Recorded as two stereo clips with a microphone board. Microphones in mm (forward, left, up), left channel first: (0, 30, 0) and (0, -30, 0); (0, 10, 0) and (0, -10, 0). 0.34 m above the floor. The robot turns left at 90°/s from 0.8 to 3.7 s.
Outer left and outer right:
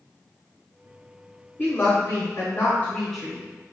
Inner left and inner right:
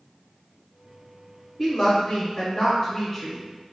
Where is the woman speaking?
150° left, 1.0 m; by 3.4 s 15° right, 1.0 m.